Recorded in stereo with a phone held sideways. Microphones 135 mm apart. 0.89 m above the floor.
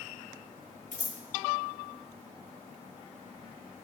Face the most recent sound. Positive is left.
turn(degrees=65)  # may be behind; listen again after turning